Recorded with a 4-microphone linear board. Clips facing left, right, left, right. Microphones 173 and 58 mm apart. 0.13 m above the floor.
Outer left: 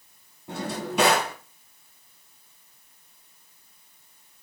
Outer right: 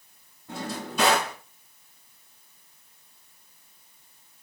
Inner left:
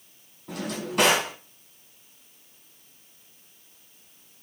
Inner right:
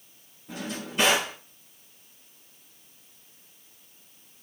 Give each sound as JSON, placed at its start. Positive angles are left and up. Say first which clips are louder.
{"t": 0.5, "sound": "a drawer", "louder": "outer left 3 dB, inner left 3 dB", "side_deg": 70, "distance_m": 1.6}